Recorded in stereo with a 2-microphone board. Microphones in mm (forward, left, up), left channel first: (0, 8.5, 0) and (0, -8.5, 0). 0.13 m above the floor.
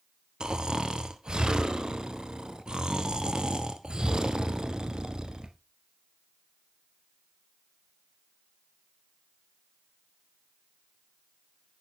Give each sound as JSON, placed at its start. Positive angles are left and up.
{"t": 0.4, "sound": "snoring", "side_deg": -60, "distance_m": 0.9}